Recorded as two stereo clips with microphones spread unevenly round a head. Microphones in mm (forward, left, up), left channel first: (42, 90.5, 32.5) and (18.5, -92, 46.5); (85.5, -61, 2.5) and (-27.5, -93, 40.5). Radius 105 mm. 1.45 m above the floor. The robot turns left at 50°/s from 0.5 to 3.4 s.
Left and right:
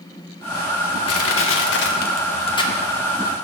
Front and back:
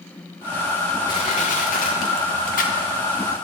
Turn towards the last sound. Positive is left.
turn(degrees=-25)